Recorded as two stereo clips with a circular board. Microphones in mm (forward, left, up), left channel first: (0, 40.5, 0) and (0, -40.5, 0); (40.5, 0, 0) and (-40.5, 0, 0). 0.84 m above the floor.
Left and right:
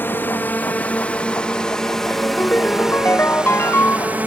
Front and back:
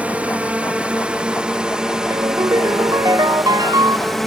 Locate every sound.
0.0 s a drone: 125° left; by 4.3 s 85° right
2.1 s a ringtone: 150° left